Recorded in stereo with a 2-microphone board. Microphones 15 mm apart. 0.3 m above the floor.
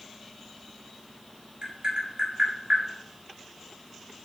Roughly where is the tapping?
Right.